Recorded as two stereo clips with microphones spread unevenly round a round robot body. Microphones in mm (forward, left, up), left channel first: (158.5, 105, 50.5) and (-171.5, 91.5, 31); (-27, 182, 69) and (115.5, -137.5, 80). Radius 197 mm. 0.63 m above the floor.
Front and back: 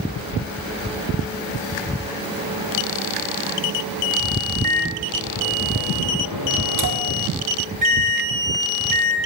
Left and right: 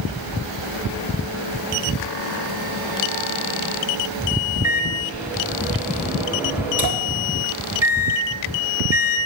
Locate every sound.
4.6 s a microwave: straight behind, 1.9 m